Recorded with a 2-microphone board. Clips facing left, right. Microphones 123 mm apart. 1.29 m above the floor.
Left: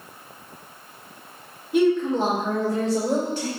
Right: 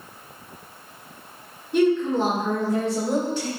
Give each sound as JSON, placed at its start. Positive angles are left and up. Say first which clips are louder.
{"t": 1.7, "sound": "a woman speaking", "louder": "even", "side_deg": 5, "distance_m": 0.9}